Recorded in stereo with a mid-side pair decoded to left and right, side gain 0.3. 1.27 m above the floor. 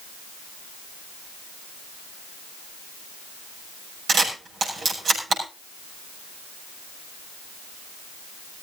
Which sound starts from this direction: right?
A camera shutter, at 4.1 s.